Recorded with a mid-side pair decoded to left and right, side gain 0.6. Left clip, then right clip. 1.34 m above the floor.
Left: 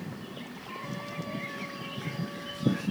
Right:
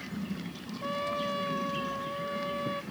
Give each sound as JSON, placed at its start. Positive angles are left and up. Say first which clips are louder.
{"t": 0.8, "sound": "a trumpet", "louder": "right 10 dB", "azimuth_deg": -50}